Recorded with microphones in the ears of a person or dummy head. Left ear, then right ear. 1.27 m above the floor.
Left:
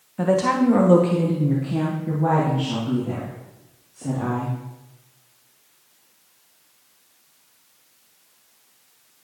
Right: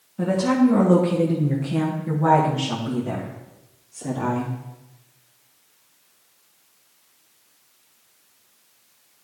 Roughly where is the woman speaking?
Left.